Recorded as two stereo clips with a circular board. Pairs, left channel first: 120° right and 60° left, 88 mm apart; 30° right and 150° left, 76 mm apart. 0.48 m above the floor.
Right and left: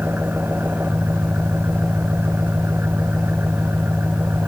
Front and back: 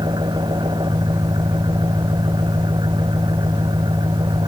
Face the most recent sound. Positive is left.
turn(degrees=130)